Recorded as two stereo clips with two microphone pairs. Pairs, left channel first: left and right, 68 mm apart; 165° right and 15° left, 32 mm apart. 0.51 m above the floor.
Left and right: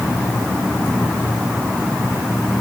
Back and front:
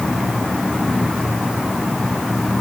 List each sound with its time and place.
Only background noise.